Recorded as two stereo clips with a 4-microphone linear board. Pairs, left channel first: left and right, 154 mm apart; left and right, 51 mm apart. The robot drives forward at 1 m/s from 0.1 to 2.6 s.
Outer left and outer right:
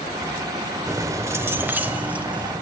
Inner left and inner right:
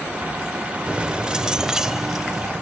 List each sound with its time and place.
0.9 s keys jangling: 20° right (ahead or behind), 0.7 m; by 2.5 s 10° right (ahead or behind), 1.8 m